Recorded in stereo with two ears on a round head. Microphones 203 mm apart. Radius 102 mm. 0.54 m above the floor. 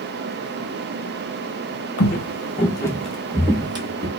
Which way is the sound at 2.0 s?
50° left (ahead or behind).